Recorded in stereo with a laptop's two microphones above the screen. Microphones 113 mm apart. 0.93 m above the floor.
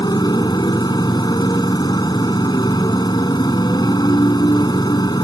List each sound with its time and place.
0.0 s a motorcycle: 40° left (ahead or behind)